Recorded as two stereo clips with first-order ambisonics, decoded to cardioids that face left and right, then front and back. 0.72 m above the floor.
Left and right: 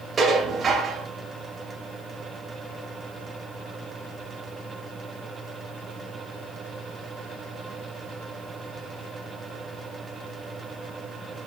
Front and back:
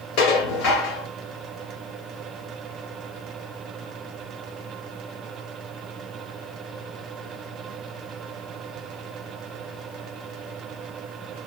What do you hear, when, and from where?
0.2 s dishes clattering: 20° right, 2 m